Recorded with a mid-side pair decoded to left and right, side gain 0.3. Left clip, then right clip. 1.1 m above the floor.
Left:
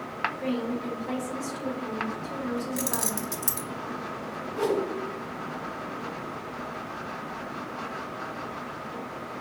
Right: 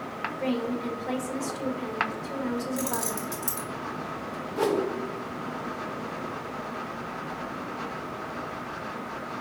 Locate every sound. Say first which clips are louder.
0.4 s a woman speaking: right 1 dB; 55° right, 1.6 m
2.8 s keys jangling: even; 50° left, 0.9 m
4.6 s a whoosh: right 1 dB; 55° right, 1.0 m